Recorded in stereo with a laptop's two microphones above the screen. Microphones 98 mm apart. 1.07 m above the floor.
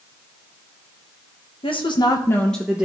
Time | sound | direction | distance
1.6 | a woman speaking | 65° left (ahead or behind) | 1.2 m